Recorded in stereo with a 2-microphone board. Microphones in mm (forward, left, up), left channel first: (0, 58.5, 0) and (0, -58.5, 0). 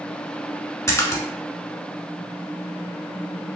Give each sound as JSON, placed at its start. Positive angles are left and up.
{"t": 0.9, "sound": "a splash", "side_deg": 25, "distance_m": 0.8}